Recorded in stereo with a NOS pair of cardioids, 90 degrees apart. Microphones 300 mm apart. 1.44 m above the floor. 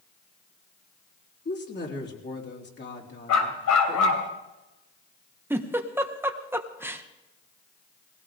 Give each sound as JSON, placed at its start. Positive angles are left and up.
{"t": 1.4, "sound": "a woman speaking", "azimuth_deg": 35, "distance_m": 3.5}
{"t": 3.3, "sound": "a dog barking", "azimuth_deg": 70, "distance_m": 3.0}
{"t": 5.5, "sound": "a giggle", "azimuth_deg": -5, "distance_m": 1.3}